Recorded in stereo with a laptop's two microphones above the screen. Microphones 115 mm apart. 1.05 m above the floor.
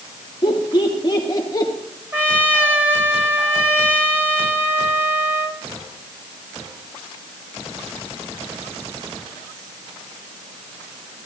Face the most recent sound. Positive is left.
turn(degrees=-15)  # may be behind; listen again after turning